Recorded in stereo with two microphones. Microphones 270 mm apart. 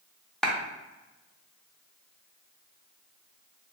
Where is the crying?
I don't hear crying.